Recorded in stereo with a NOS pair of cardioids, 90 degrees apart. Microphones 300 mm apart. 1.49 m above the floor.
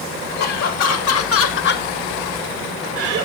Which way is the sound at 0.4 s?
70° left.